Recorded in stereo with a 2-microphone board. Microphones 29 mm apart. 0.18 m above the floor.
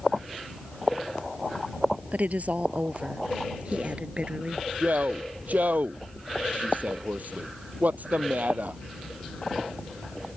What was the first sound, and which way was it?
A woman speaking, 60° right (ahead or behind).